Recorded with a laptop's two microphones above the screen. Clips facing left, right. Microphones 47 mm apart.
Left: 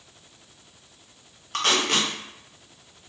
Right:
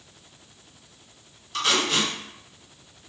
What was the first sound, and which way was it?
Tape being pulled, 50° left (ahead or behind).